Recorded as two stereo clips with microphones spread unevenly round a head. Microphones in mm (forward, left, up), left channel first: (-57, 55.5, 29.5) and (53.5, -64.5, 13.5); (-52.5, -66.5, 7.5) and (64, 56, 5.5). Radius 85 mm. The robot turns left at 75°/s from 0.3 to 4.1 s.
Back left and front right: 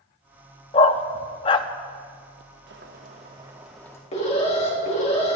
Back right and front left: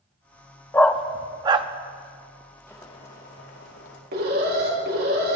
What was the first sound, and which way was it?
A dog barking, 155° left.